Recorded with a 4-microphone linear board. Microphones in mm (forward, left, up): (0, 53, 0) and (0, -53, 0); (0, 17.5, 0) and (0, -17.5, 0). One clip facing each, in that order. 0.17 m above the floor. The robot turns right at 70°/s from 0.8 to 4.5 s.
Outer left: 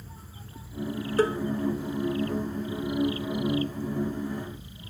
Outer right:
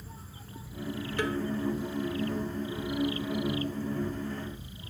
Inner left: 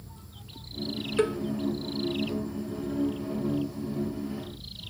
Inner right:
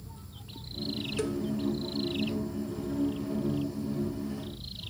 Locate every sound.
1.2 s a cowbell: 40° left (ahead or behind); by 1.4 s 25° left (ahead or behind)